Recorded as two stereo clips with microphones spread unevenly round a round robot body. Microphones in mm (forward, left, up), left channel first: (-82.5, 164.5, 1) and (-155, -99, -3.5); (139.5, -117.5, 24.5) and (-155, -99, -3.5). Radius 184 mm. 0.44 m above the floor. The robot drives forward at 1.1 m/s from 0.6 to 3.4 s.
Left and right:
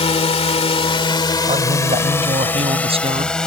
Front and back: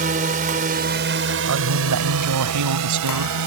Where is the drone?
130° left; by 3.5 s 160° left.